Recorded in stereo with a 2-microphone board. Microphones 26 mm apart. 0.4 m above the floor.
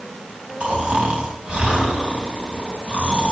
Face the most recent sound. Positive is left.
turn(degrees=-60)  # may be behind; listen again after turning